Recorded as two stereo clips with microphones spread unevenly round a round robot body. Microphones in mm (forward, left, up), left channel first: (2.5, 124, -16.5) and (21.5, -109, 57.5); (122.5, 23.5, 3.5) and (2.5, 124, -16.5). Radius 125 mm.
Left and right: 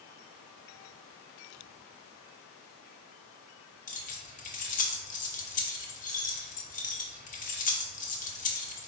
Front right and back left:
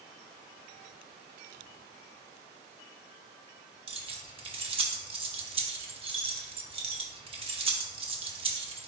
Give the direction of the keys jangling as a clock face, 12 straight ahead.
8 o'clock.